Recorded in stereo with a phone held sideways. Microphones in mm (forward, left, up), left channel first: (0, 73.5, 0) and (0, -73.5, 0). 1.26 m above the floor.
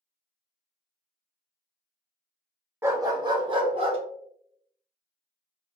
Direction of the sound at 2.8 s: 15° right (ahead or behind).